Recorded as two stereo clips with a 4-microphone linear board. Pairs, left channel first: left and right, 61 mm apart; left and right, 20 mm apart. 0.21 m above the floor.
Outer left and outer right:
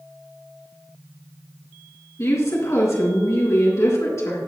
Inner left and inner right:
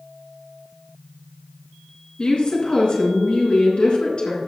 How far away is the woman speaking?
About 3.5 m.